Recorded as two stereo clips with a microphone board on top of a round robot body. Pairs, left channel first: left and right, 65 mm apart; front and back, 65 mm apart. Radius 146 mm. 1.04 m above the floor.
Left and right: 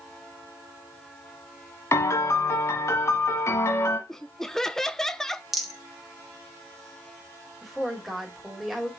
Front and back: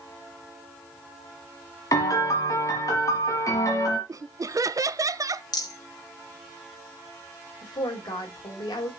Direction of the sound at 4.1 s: 170° left.